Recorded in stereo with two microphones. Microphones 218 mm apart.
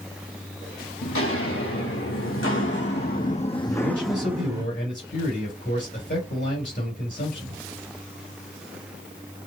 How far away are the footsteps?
About 1.9 m.